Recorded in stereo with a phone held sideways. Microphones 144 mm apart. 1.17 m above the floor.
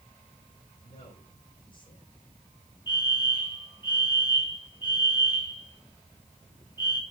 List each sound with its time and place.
0.8 s a man speaking: 35° left (ahead or behind), 9 m
2.9 s a fire alarm: 30° left (ahead or behind), 3 m